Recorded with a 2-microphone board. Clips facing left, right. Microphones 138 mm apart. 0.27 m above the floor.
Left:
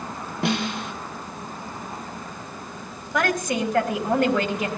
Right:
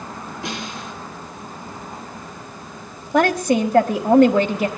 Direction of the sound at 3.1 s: 30° right (ahead or behind).